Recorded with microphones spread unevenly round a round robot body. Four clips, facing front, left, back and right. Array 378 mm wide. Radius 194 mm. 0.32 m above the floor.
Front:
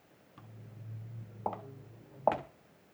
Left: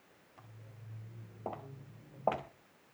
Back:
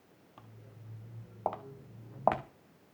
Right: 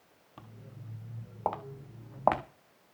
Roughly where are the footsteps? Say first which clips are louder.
Right 8 dB, front 2 dB; ahead right.